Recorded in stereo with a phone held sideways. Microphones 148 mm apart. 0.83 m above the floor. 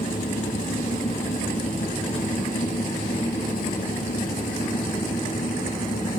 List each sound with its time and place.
0.0 s a fan: 75° left (ahead or behind)